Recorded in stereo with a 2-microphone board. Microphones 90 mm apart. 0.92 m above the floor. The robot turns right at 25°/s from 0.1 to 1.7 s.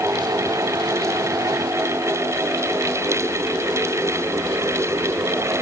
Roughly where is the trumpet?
No trumpet in this recording.